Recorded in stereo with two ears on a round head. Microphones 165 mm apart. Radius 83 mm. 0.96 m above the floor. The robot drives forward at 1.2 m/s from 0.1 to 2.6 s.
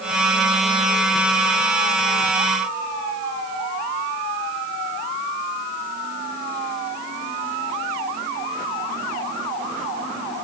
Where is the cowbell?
No cowbell in this recording.